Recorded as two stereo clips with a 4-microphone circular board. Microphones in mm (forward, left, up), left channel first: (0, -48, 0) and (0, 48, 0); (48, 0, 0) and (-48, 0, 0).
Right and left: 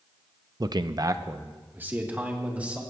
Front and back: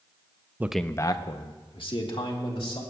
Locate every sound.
0.6 s a man speaking: 120° left, 0.5 m; by 2.8 s 15° left, 3 m